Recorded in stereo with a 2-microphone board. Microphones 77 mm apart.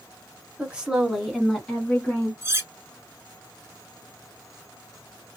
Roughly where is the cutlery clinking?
Right.